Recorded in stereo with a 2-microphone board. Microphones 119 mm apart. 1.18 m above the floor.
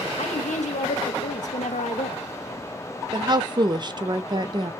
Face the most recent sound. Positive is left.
turn(degrees=-35)  # may be behind; listen again after turning